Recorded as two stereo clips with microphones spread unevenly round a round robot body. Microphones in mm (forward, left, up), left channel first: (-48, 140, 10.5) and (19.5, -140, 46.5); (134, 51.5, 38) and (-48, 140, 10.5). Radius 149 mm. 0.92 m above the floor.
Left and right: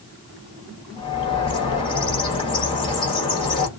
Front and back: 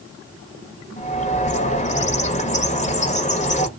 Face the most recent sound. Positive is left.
turn(degrees=35)